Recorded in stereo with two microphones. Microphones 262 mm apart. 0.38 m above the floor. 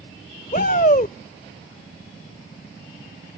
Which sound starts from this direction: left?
A shout, at 0.5 s.